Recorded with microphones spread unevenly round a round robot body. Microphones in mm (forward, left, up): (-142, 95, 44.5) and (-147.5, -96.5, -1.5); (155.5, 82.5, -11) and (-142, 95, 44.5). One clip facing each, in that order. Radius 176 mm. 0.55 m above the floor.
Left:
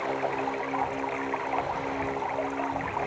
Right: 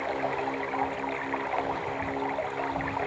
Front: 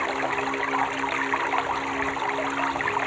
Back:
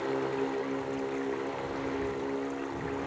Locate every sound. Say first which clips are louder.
0.0 s running water: left 1 dB, even; 5° right